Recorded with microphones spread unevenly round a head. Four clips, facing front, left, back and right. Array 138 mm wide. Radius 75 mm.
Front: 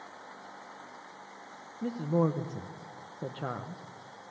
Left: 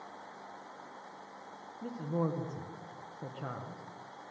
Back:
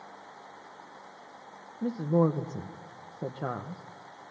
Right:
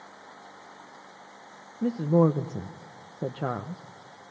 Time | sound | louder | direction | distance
1.8 | a woman speaking | right 12 dB, back 3 dB | 105° right | 0.9 m